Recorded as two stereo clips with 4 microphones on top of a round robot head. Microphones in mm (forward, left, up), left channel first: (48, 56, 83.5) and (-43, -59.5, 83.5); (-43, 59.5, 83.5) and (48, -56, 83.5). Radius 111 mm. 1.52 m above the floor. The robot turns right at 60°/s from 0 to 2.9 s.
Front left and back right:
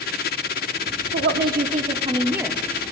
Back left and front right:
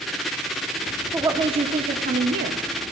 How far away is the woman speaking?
About 0.8 m.